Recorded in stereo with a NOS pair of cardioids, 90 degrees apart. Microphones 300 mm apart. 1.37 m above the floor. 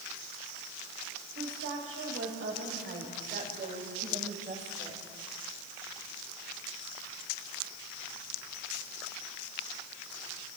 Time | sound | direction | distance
1.4 | a woman speaking | 50° right | 7 m